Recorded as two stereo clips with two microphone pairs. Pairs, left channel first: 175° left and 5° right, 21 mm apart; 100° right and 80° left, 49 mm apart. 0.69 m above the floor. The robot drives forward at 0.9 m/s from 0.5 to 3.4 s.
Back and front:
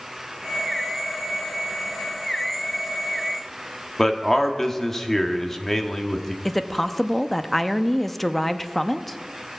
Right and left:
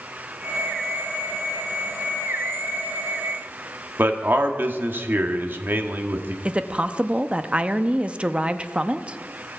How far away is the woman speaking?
About 0.6 m.